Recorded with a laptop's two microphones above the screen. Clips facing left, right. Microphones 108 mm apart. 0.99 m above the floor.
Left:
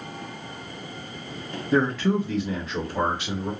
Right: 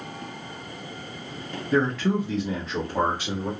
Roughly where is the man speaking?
Left.